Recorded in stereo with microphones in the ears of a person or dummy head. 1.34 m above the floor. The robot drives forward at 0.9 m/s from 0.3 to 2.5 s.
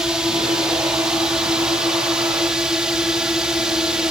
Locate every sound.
0.0 s a drone: centre (ahead or behind); by 4.1 s 5° right (ahead or behind)